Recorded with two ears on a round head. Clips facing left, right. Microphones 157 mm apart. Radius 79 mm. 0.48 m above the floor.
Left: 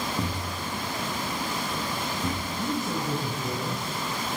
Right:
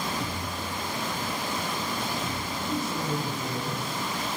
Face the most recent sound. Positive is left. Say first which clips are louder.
# right 1 dB
turn(degrees=55)  # may be behind; listen again after turning